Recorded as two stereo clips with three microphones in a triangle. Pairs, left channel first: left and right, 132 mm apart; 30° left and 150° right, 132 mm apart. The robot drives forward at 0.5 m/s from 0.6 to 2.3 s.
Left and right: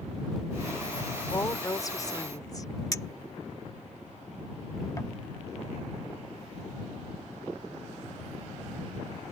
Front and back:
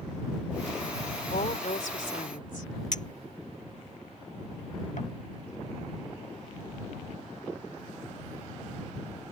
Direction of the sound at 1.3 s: 25° left.